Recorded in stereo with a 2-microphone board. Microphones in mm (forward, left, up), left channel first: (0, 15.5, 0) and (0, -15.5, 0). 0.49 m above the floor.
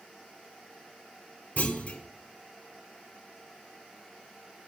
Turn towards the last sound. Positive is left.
turn(degrees=60)  # may be behind; listen again after turning